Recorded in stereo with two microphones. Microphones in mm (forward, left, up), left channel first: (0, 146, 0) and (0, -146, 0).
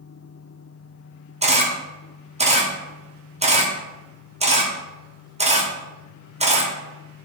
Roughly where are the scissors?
I don't hear scissors.